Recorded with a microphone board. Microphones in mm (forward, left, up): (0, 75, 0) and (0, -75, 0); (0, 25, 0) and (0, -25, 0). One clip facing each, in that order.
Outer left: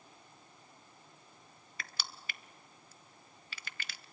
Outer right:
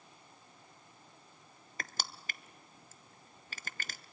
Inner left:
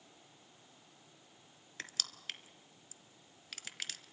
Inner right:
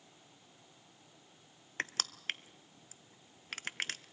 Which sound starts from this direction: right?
Crushing, at 1.8 s.